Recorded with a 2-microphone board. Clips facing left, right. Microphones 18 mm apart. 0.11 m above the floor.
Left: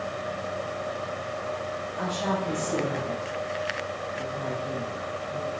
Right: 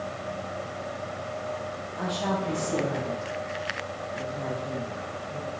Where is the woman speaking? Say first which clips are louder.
Even; 15° right (ahead or behind), 3.5 m; by 5.5 s 45° right (ahead or behind), 6 m.